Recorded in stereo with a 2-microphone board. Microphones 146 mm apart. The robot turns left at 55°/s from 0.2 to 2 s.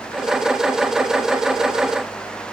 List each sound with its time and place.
Only background noise.